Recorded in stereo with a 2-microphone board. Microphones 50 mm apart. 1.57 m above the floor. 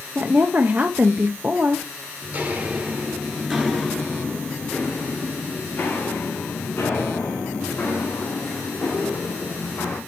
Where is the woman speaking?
35° right (ahead or behind), 0.6 m.